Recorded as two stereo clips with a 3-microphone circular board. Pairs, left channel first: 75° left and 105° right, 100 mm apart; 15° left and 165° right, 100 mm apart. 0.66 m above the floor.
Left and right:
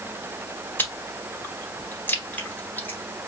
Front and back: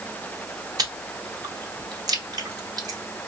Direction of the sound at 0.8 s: 145° left.